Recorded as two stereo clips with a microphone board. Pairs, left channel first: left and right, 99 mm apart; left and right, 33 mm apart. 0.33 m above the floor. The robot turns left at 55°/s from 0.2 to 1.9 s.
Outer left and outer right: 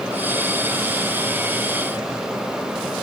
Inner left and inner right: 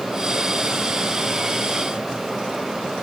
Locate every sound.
Only background noise.